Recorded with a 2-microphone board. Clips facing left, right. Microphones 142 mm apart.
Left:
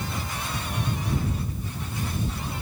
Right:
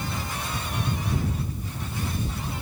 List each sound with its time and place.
Only background noise.